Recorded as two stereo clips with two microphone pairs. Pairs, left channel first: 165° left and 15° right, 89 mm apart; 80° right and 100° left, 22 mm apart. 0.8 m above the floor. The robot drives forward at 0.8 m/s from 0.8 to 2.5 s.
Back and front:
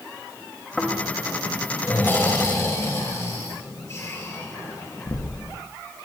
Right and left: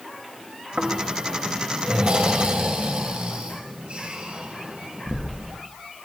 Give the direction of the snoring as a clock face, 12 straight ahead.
9 o'clock.